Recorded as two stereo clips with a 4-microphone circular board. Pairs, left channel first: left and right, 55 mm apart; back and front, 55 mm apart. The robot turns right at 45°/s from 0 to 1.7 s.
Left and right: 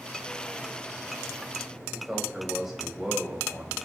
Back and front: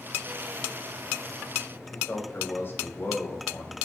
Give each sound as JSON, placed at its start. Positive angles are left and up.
{"t": 1.9, "sound": "a man speaking", "azimuth_deg": -170, "distance_m": 1.7}